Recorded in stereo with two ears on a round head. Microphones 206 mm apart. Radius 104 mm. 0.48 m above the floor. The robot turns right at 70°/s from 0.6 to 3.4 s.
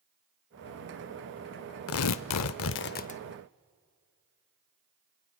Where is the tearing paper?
60° left, 0.6 m; by 3.2 s 155° left, 0.6 m.